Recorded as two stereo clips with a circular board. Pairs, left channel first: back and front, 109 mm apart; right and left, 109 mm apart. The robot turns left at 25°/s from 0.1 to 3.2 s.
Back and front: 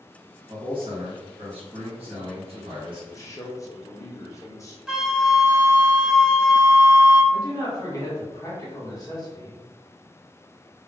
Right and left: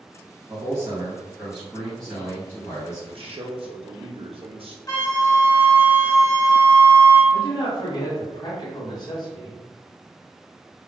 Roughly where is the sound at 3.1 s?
Behind left.